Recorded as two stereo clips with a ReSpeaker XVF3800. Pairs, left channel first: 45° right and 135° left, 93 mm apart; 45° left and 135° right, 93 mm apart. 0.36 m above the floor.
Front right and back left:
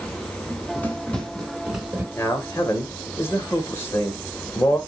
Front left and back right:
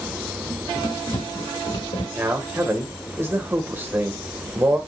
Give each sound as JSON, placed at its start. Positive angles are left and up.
{"t": 0.5, "sound": "running footsteps", "azimuth_deg": 20, "distance_m": 3.0}
{"t": 2.2, "sound": "a man speaking", "azimuth_deg": -85, "distance_m": 1.8}